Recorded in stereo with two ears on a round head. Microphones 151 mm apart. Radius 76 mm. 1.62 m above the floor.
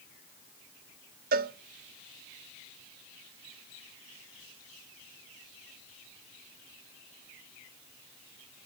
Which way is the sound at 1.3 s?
55° right (ahead or behind).